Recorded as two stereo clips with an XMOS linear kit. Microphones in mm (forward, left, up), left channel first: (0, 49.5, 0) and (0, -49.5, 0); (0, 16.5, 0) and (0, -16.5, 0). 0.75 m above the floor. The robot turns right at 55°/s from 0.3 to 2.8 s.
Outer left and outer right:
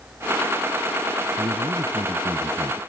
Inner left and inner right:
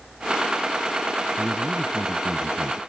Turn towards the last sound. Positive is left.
turn(degrees=-30)